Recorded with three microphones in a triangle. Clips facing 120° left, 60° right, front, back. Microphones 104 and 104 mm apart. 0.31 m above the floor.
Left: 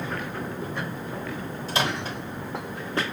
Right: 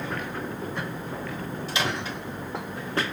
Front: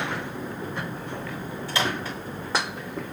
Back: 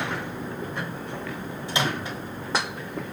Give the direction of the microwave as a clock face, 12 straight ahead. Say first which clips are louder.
Left 3 dB, even; 8 o'clock.